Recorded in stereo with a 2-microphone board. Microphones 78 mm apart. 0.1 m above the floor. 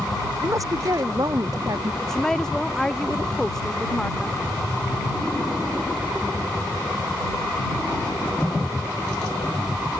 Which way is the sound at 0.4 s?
45° right (ahead or behind).